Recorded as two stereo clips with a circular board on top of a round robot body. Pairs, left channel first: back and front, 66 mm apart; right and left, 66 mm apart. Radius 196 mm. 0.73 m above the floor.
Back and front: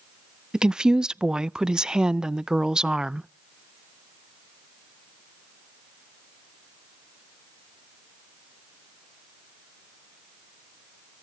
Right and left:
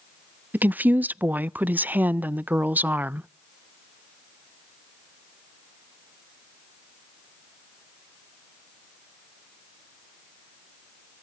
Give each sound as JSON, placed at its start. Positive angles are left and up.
{"t": 0.5, "sound": "a woman speaking", "azimuth_deg": 65, "distance_m": 0.6}